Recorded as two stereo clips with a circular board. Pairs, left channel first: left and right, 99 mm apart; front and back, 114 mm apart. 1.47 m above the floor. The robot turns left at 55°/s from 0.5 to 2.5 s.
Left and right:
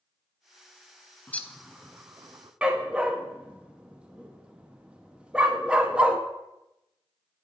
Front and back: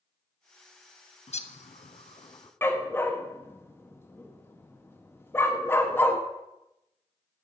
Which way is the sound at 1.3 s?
20° left.